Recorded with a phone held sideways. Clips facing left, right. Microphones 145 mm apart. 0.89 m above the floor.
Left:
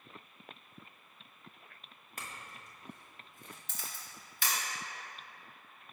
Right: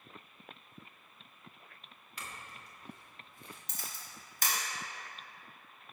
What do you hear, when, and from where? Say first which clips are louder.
2.2 s a clink: even; 45° left (ahead or behind), 0.9 m
3.7 s a camera shutter: left 1 dB; 40° right (ahead or behind), 1.1 m